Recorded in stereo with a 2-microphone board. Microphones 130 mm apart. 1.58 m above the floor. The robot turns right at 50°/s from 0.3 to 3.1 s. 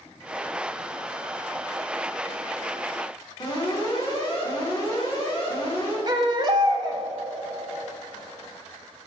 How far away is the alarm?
About 2.5 m.